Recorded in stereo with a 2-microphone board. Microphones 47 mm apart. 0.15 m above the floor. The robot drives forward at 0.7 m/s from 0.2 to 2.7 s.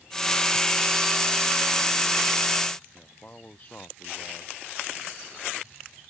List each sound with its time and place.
2.9 s a man speaking: 35° left (ahead or behind)